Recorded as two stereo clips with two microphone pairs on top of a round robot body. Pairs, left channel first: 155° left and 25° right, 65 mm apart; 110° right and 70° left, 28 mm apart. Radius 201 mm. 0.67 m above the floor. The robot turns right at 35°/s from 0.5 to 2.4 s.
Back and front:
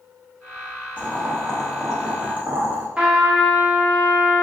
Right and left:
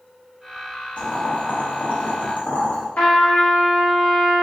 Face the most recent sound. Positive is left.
turn(degrees=-95)